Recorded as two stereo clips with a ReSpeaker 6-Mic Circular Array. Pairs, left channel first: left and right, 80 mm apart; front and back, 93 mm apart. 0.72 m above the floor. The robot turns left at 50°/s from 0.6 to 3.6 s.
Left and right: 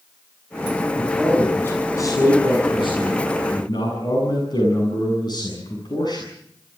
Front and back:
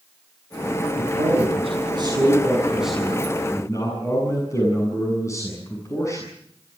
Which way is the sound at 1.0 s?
170° right.